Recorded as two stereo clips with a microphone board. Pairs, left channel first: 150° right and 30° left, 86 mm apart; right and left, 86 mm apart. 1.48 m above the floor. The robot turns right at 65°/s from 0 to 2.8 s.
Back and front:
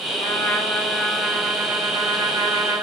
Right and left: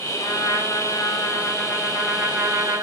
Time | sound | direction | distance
0.2 | a trumpet | 125° right | 3 m